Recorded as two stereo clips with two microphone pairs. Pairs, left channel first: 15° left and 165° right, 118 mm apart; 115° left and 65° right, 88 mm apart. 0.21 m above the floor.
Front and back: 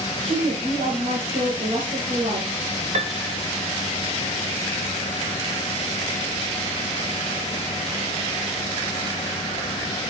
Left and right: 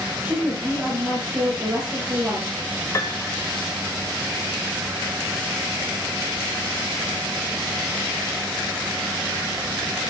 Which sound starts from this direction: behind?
A piano, at 2.9 s.